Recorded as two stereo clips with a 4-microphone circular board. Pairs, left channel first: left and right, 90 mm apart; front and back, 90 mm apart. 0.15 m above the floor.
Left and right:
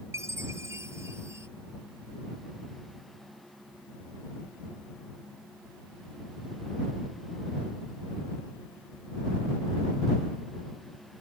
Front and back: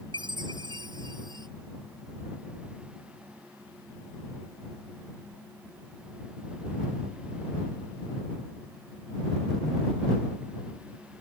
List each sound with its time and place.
0.1 s a chime: 150° right